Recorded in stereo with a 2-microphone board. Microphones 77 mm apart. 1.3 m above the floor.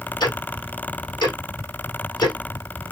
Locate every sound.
0.2 s ticking: 70° left (ahead or behind), 1.3 m